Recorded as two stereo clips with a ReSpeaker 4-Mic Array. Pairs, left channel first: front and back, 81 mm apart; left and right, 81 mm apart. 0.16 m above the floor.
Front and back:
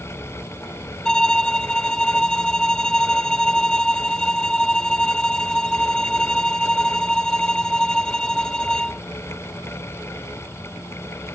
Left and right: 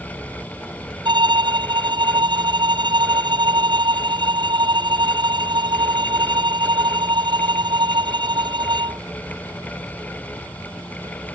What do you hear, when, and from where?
1.1 s a violin: 80° right